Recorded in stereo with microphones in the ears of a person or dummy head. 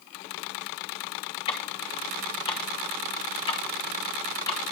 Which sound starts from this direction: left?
Ticking, at 1.5 s.